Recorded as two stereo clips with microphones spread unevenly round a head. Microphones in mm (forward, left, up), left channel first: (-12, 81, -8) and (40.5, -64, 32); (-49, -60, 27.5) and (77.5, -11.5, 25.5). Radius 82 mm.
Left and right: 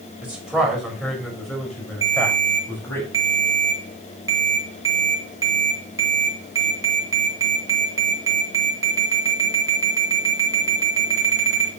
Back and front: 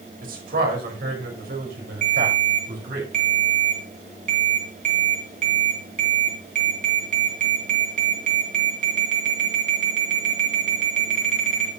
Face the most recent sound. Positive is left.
turn(degrees=-5)